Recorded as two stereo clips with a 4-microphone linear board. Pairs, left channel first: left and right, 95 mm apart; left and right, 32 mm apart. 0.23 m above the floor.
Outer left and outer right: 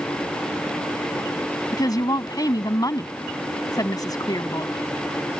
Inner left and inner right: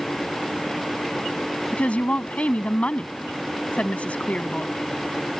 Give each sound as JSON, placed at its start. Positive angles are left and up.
{"t": 1.7, "sound": "a woman speaking", "side_deg": 45}